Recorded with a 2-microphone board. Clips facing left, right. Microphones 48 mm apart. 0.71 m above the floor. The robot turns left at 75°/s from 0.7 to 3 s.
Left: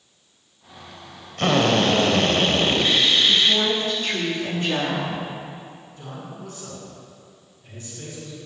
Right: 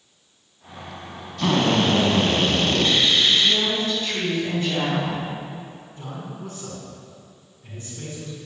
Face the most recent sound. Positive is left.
turn(degrees=-30)  # may be behind; listen again after turning